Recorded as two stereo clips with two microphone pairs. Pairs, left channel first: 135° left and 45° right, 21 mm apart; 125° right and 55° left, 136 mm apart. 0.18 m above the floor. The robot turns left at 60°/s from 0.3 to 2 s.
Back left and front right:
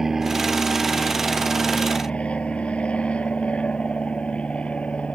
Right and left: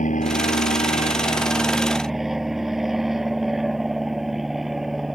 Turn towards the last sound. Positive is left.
turn(degrees=145)